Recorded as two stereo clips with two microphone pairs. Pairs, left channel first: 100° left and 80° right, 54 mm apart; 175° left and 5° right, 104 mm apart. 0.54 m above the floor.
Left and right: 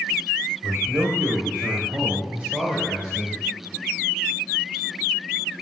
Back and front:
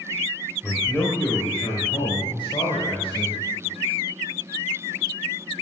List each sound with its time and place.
0.6 s a man speaking: 115° right, 2 m; by 3.4 s 160° right, 2.5 m